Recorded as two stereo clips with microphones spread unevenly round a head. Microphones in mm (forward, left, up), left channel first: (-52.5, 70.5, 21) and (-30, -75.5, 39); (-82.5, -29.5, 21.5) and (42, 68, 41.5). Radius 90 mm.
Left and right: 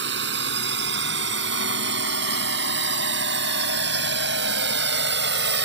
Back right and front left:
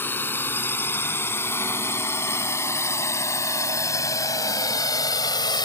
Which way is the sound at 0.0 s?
60° right.